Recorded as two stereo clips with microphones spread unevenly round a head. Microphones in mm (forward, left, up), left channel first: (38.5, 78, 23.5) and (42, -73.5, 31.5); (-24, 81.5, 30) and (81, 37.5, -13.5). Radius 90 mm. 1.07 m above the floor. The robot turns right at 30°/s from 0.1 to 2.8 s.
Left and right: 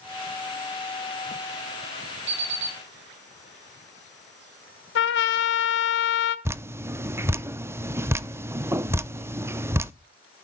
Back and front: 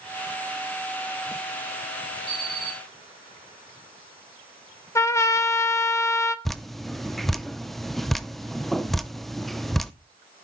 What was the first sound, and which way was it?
An alarm clock, 115° right.